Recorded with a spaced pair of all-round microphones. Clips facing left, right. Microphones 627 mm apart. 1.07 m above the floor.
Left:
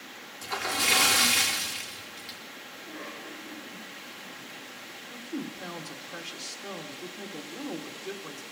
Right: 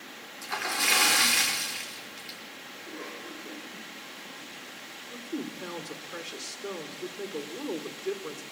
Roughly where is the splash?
Left.